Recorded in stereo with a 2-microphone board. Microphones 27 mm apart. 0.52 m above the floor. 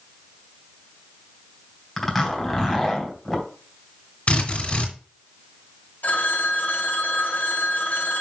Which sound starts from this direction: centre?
A zipper, at 2.0 s.